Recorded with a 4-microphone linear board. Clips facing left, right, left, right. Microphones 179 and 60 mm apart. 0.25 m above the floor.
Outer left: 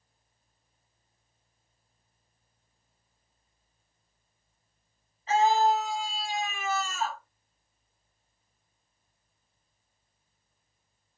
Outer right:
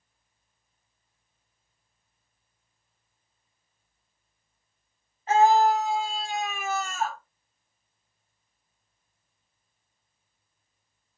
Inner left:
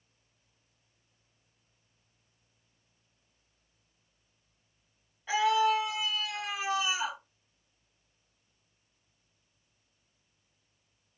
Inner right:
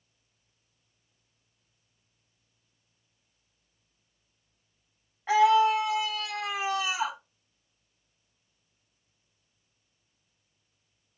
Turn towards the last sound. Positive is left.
turn(degrees=-50)  # may be behind; listen again after turning